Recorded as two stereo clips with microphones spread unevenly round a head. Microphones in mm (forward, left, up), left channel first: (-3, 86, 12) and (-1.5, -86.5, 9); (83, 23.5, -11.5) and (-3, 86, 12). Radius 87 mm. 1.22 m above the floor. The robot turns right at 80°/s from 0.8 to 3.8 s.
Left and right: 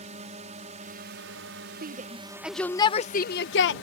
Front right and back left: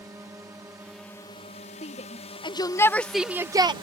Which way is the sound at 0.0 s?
140° right.